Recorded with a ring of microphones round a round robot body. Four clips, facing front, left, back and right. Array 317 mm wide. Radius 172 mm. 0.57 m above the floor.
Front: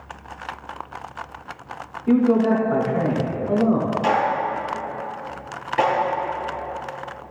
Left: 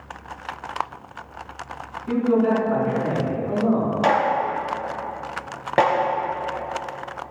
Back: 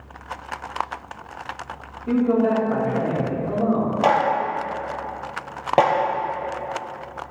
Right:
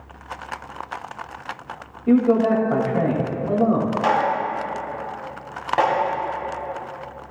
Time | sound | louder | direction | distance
2.1 | a man speaking | right 3 dB, front 2 dB | 85° right | 4 m
4.0 | a clap | left 2 dB, back 3 dB | 150° left | 2.5 m